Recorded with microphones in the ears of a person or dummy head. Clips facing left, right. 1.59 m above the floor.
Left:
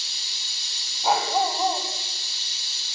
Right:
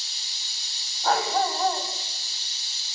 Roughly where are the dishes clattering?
I don't hear dishes clattering.